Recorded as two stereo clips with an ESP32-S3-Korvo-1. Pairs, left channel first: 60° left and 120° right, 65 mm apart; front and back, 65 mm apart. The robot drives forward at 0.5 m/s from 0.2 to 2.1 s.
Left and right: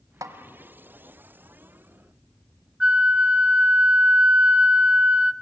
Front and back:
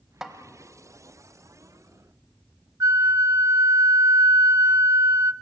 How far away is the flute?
About 0.5 m.